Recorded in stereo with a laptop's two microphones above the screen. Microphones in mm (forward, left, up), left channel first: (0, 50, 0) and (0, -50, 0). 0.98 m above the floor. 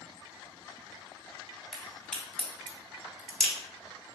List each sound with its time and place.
1.7 s a crack: 5° left (ahead or behind), 1.1 m